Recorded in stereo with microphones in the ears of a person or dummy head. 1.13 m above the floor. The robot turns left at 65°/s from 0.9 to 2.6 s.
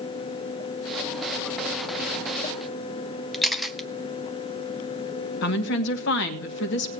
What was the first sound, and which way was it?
A camera shutter, centre (ahead or behind).